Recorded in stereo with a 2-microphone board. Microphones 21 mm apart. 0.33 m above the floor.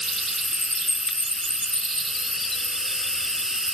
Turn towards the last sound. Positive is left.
turn(degrees=-25)  # may be behind; listen again after turning